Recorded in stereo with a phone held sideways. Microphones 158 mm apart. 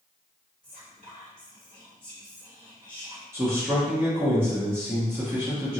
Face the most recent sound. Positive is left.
turn(degrees=-15)  # may be behind; listen again after turning